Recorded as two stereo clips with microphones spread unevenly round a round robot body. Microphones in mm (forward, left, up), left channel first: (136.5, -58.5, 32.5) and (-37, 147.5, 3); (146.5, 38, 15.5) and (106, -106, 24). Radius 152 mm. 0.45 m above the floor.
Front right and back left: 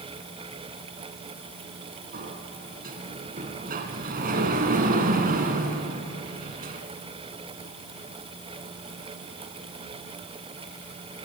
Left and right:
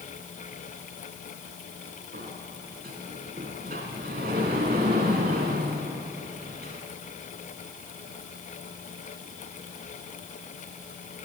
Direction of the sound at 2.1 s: 165° right.